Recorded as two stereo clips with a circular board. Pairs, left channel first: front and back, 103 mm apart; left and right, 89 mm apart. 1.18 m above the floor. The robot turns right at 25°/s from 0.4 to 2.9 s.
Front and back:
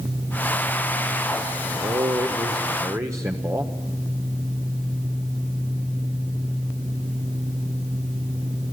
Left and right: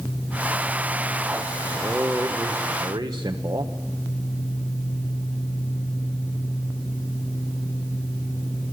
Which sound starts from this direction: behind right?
A man speaking, at 1.7 s.